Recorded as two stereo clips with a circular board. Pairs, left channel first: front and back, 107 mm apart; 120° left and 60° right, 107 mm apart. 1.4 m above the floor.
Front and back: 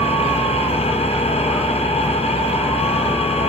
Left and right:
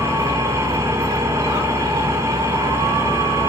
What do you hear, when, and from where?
0.0 s an engine running: 5° left, 4.5 m